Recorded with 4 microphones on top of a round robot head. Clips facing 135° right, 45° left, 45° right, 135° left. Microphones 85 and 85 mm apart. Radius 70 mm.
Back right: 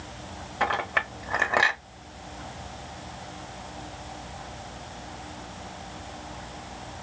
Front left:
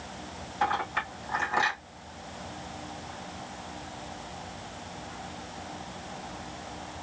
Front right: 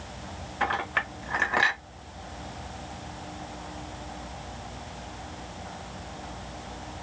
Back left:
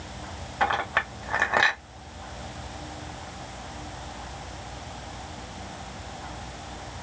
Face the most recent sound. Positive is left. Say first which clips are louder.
# back right 2 dB, back left 3 dB
turn(degrees=-165)